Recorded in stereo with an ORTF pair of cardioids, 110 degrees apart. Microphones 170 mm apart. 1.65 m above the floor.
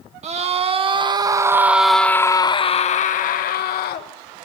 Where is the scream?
40° right, 1.6 m; by 4.1 s 70° left, 1.5 m.